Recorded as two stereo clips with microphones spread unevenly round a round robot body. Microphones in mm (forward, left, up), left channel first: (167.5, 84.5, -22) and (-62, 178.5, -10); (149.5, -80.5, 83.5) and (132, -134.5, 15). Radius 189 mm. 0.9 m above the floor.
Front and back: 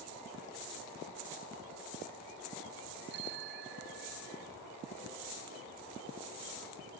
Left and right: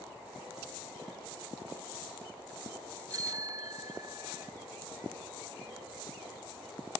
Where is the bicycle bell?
140° right.